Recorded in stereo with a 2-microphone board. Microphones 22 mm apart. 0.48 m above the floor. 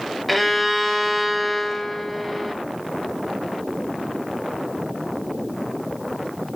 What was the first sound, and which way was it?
A violin, 5° right (ahead or behind).